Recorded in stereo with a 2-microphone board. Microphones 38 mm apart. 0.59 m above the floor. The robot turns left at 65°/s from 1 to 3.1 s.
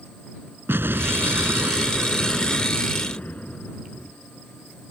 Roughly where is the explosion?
Right.